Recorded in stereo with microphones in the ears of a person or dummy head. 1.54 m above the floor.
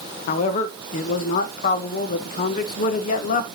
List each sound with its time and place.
0.3 s a man speaking: 55° left (ahead or behind), 1.1 m